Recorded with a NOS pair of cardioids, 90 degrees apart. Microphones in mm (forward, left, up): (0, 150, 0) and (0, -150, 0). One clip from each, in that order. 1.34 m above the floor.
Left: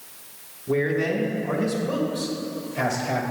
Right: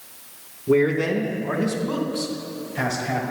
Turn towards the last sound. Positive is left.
turn(degrees=0)